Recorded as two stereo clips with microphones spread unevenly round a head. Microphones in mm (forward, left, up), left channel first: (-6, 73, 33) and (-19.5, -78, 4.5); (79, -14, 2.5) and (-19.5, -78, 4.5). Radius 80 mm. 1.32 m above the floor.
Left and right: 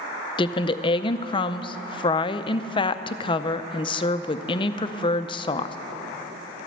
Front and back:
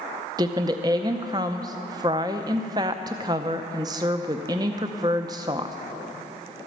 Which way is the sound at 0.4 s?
145° left.